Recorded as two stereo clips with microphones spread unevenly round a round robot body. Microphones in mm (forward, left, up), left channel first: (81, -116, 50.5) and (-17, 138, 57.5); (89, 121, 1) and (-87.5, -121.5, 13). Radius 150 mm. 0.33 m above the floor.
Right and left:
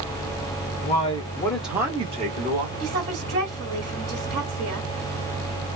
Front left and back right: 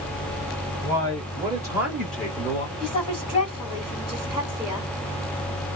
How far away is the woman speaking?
About 1.9 m.